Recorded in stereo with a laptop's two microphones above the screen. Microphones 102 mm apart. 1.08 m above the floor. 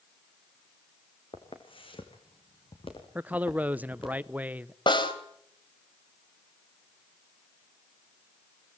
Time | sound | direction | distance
1.3 | footsteps | 55° left (ahead or behind) | 4 m
3.1 | a man speaking | 15° right (ahead or behind) | 0.6 m
4.9 | a snare drum | 50° left (ahead or behind) | 3.5 m